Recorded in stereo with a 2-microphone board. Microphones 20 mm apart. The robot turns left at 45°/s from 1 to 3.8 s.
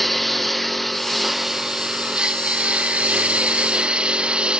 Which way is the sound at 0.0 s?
5° left.